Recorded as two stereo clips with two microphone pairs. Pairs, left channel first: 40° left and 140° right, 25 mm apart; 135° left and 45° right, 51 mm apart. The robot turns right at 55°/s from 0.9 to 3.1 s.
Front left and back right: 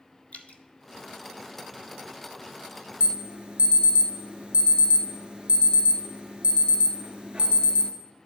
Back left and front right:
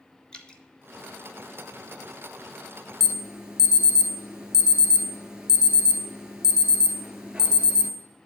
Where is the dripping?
60° left, 0.7 m.